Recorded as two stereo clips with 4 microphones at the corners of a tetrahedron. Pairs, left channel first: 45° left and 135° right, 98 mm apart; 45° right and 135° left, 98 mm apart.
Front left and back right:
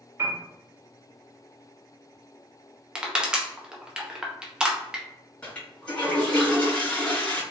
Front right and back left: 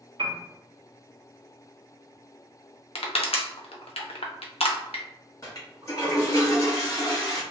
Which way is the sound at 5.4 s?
25° right.